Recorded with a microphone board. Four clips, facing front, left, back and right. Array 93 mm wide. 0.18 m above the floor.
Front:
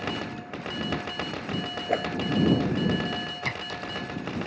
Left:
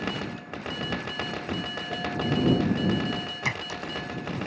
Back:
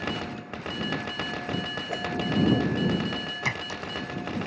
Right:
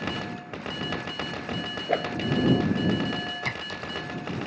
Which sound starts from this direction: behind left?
A clink, at 3.5 s.